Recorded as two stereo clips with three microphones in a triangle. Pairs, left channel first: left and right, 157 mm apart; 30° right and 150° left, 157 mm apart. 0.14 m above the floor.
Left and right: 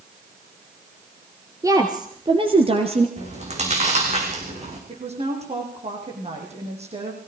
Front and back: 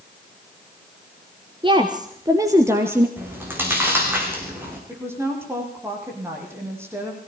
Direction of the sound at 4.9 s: 135° right.